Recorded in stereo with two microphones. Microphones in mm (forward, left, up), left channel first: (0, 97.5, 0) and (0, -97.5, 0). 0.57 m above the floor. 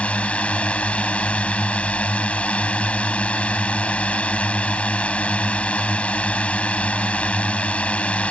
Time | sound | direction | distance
0.0 | a drone | 5° left (ahead or behind) | ?